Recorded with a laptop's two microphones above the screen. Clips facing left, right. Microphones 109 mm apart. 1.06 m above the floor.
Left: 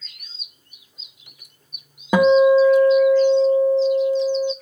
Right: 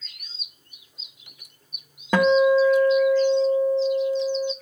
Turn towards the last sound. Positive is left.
turn(degrees=15)  # may be behind; listen again after turning